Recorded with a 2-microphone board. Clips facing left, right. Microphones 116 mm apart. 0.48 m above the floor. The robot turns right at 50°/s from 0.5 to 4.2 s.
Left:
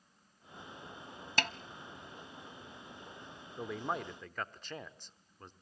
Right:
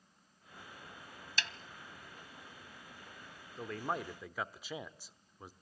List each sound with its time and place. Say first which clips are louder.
1.4 s a snare drum: left 7 dB; 55° left (ahead or behind), 0.5 m; by 1.5 s 50° left (ahead or behind), 0.5 m
3.6 s a man speaking: left 1 dB; 160° left, 0.9 m; by 5.5 s 170° right, 0.9 m